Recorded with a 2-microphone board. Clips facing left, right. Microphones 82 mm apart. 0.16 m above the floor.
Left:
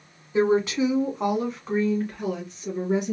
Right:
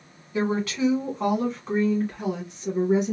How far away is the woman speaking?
About 1.2 m.